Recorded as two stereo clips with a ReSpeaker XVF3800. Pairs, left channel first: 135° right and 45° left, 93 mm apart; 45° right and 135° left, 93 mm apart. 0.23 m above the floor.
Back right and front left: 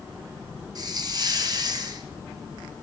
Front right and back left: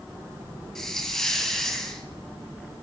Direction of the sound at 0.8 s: 40° left.